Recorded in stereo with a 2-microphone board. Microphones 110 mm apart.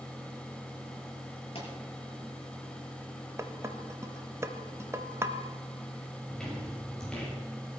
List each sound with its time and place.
1.6 s a pop: 55° left (ahead or behind), 6 m
3.4 s dishes clattering: 25° right (ahead or behind), 0.9 m
6.3 s footsteps: 5° left (ahead or behind), 9 m; by 7.3 s 10° left (ahead or behind), 7.5 m